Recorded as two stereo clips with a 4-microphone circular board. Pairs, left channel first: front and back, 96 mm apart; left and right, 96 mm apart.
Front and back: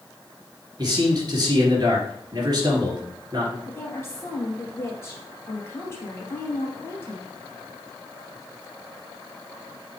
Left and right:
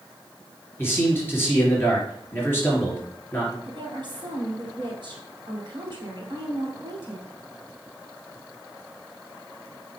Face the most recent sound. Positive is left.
turn(degrees=-65)